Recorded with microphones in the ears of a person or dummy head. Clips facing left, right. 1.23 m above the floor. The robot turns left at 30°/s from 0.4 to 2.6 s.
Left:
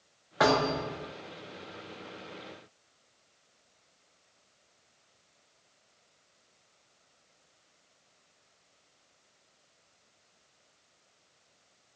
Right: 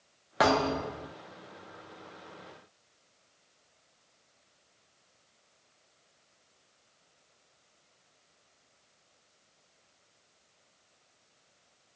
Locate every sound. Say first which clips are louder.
0.4 s a thud: even; 45° right (ahead or behind), 0.6 m